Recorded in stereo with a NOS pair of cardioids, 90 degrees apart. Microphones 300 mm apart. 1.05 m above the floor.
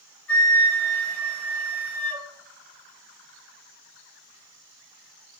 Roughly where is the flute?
Ahead.